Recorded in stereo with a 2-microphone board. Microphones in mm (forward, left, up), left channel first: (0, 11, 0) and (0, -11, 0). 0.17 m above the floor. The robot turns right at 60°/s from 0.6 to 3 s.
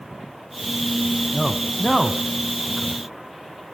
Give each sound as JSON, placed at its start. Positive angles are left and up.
{"t": 1.3, "sound": "a man speaking", "side_deg": 10, "distance_m": 1.0}